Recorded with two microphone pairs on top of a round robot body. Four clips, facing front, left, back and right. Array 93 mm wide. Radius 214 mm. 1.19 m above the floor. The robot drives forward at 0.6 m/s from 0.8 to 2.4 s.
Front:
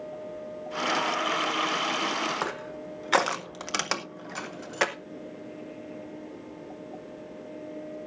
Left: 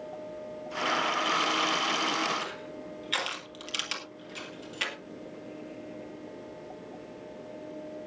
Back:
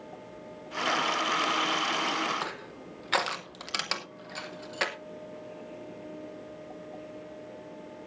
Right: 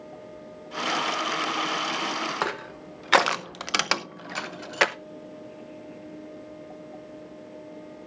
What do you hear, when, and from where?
2.4 s crushing: 75° right, 0.5 m